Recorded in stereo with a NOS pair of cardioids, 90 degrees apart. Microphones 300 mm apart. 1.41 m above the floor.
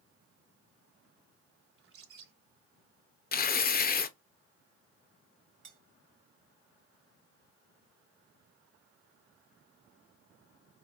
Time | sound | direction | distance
1.8 | a bird | 45° right | 1.3 m
3.3 | tearing paper | 30° left | 0.6 m
5.6 | cutlery clinking | 40° right | 1.5 m